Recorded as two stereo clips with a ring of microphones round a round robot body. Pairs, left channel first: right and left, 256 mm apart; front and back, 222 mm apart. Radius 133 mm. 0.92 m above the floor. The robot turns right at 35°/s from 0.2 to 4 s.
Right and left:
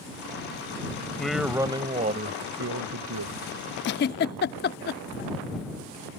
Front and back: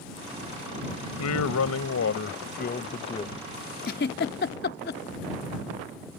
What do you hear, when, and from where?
1.2 s a man speaking: 5° right; by 3.4 s 70° left
3.8 s a giggle: 50° right; by 5.0 s 45° right